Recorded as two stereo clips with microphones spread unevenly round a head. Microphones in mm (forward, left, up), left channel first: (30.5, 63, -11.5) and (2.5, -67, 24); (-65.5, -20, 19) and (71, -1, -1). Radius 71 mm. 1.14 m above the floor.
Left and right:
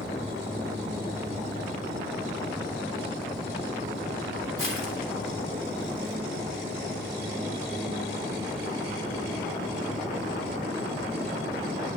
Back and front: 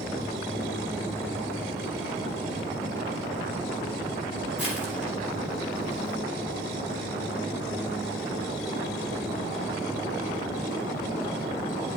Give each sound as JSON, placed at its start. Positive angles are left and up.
{"t": 4.6, "sound": "crushing", "azimuth_deg": 90, "distance_m": 3.0}